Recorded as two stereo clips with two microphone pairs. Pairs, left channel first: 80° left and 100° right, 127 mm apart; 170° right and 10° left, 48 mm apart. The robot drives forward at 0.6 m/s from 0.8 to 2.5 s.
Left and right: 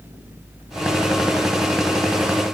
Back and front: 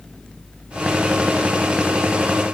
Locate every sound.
Only background noise.